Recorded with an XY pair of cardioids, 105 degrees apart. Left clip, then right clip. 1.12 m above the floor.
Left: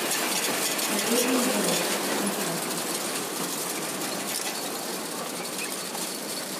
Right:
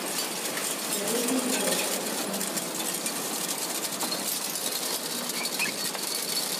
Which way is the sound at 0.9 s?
65° left.